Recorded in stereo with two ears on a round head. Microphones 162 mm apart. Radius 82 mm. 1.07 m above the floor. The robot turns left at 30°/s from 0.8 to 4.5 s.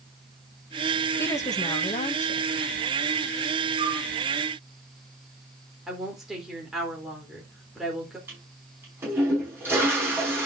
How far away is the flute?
About 6 m.